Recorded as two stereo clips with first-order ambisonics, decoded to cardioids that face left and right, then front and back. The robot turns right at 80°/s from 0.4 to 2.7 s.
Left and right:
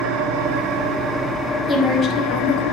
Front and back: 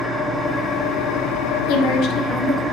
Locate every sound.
0.0 s an engine running: 95° right, 1.8 m; by 2.7 s 90° left, 1.8 m
1.7 s a woman speaking: straight ahead, 1.9 m; by 2.6 s 75° left, 1.9 m